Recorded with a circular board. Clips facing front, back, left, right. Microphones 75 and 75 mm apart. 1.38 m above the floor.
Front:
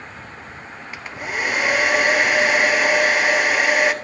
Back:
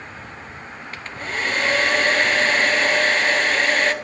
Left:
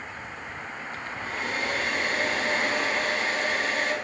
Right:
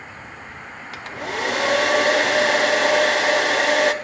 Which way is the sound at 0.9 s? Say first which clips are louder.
Front 1 dB, right 7 dB; 80° right.